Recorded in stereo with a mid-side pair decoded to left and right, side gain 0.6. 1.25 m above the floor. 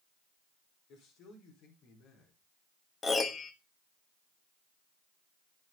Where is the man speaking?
65° left, 5 m.